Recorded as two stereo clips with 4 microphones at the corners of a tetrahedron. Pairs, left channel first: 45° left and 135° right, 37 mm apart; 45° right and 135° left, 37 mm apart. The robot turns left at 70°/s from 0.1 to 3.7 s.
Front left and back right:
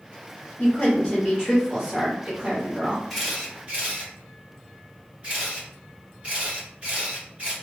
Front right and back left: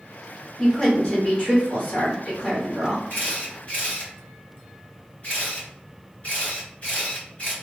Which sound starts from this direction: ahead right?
A camera shutter, at 3.1 s.